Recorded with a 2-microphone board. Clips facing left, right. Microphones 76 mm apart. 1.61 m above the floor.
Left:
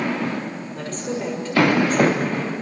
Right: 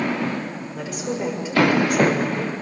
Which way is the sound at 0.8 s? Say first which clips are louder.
Right 1 dB; 10° right (ahead or behind).